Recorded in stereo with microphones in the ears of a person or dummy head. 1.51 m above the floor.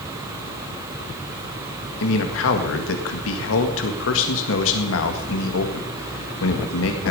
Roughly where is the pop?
No pop in this recording.